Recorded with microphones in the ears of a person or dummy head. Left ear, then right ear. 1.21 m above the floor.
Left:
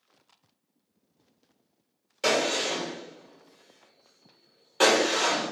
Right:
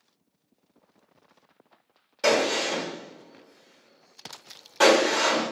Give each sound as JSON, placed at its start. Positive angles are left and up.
{"t": 2.2, "sound": "a gunshot", "side_deg": 10, "distance_m": 1.0}